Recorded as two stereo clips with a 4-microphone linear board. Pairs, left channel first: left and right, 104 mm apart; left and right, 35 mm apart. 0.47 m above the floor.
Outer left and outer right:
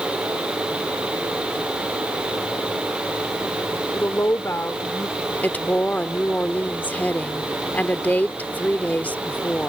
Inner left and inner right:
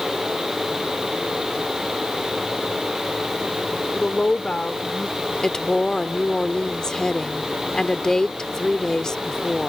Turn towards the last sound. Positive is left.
turn(degrees=15)  # may be behind; listen again after turning